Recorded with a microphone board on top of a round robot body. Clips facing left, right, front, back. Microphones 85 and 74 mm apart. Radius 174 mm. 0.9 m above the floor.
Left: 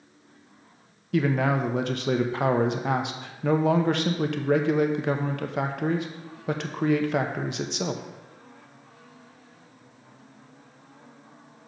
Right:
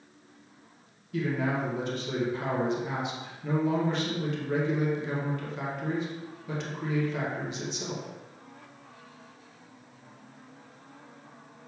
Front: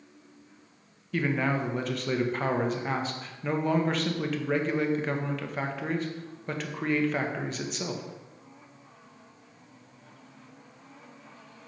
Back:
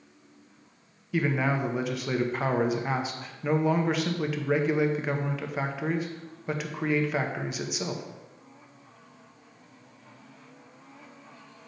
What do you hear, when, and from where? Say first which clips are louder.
1.1 s a man speaking: left 5 dB, back 1 dB; 95° left, 1.0 m